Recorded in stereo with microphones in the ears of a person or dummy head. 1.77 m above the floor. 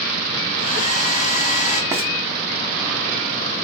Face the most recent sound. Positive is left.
turn(degrees=-10)  # may be behind; listen again after turning